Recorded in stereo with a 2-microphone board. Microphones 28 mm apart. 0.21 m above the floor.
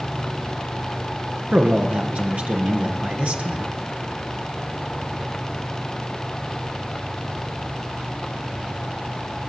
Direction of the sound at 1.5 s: 50° right (ahead or behind).